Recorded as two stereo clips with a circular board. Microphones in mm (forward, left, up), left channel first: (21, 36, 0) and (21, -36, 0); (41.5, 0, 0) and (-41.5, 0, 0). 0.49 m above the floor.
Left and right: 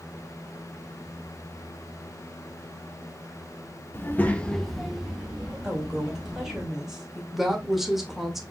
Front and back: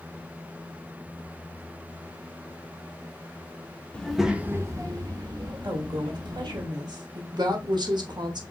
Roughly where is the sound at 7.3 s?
Behind.